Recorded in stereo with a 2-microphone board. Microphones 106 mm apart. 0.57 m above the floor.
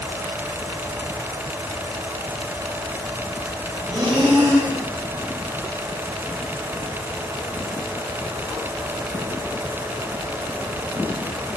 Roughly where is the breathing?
Right.